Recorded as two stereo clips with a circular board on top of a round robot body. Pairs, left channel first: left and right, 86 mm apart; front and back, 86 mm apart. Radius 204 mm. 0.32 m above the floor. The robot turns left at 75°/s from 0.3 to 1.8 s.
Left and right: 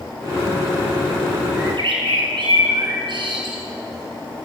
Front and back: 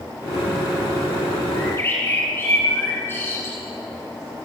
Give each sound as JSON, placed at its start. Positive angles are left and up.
{"t": 1.6, "sound": "a bird", "azimuth_deg": -45, "distance_m": 6.5}